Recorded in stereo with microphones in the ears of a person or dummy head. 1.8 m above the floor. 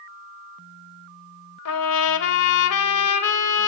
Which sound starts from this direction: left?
A trumpet, at 1.6 s.